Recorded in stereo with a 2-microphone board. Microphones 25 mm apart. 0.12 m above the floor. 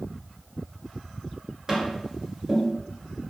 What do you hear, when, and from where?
1.7 s tapping: 25° right (ahead or behind), 1.8 m